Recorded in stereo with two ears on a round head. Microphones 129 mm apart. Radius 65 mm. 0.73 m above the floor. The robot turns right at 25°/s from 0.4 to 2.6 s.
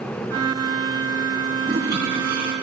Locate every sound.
1.6 s a toilet flushing: 85° right, 3.5 m; by 2.5 s 65° right (ahead or behind), 3.5 m